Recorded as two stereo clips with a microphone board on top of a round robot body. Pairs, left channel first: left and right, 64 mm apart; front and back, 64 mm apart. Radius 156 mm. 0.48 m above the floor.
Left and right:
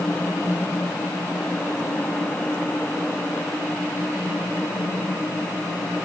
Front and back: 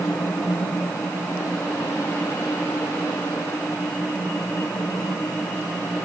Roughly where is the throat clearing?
No throat clearing in this recording.